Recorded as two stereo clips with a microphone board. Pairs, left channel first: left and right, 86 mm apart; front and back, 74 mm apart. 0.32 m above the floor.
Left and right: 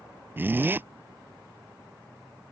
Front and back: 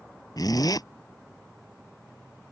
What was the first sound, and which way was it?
A zipper, 25° right.